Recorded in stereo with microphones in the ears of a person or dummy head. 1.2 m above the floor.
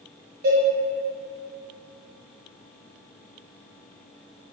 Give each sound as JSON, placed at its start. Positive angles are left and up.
{"t": 0.4, "sound": "a cowbell", "side_deg": -55, "distance_m": 1.1}